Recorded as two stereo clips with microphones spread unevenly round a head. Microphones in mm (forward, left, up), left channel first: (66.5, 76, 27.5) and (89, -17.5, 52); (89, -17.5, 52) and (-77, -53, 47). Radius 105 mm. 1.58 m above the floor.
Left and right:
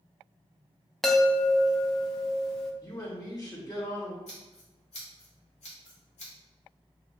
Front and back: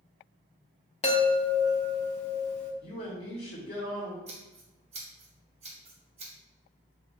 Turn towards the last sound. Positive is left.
turn(degrees=135)